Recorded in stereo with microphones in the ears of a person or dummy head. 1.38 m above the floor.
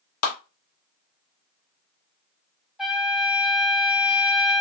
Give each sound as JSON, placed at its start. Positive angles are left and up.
{"t": 0.2, "sound": "a clap", "side_deg": 85, "distance_m": 1.4}
{"t": 2.8, "sound": "a trumpet", "side_deg": 0, "distance_m": 0.6}